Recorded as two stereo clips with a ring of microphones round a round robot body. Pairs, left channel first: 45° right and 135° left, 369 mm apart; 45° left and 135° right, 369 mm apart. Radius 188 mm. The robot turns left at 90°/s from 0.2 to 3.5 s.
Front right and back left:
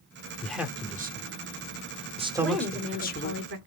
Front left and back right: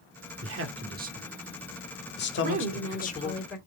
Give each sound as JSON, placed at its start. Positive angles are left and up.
{"t": 0.4, "sound": "a man speaking", "azimuth_deg": -125, "distance_m": 0.8}
{"t": 2.4, "sound": "a woman speaking", "azimuth_deg": -120, "distance_m": 1.4}